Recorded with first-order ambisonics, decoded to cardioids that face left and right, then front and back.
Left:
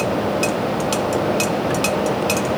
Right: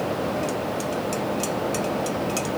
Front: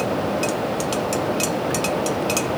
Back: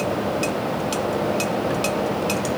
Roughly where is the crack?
I don't hear a crack.